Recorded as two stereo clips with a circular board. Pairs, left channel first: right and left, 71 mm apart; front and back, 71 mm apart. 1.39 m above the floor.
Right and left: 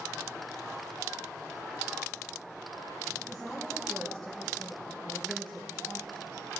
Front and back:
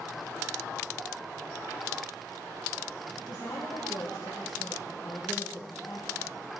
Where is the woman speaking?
Straight ahead, 2 m; by 6.6 s 30° right, 3 m.